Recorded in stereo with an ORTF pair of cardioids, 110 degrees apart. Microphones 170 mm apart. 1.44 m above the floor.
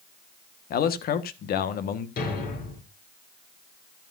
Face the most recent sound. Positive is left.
turn(degrees=65)